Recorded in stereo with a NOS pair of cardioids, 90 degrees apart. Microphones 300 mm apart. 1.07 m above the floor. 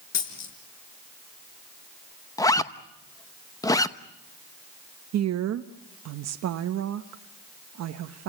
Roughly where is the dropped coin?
Ahead left.